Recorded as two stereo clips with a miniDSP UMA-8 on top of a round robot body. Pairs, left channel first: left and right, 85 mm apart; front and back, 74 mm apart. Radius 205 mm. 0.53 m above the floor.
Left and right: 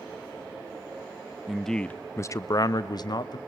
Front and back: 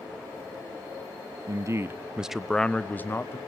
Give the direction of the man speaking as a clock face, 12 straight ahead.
6 o'clock.